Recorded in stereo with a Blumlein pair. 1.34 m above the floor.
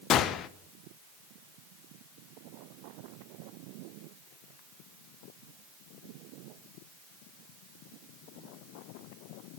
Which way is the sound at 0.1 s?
30° left.